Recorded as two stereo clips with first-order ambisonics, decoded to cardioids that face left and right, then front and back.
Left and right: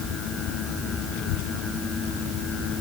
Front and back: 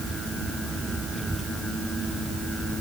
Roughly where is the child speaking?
Left.